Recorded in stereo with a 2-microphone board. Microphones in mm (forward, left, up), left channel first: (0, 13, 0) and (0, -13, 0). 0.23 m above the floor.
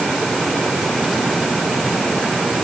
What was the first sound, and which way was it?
Only background noise.